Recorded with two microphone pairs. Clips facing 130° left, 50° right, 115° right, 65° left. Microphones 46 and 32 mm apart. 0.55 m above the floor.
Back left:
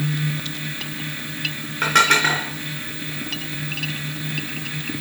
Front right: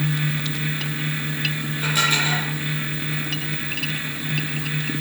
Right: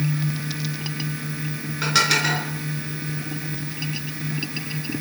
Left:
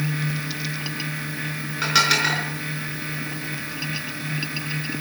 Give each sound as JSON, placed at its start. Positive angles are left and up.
{"t": 1.8, "sound": "dishes clattering", "azimuth_deg": 150, "distance_m": 4.5}